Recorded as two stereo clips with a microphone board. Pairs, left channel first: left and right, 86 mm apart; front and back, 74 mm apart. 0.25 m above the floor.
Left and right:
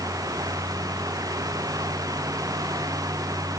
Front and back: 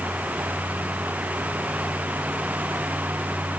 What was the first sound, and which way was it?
Only background noise.